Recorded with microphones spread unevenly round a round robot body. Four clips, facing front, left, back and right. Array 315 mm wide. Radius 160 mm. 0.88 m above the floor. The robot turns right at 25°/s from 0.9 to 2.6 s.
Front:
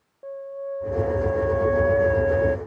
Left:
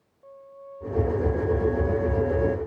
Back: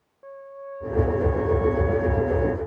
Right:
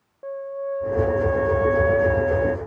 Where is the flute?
75° right; by 2.6 s 30° right.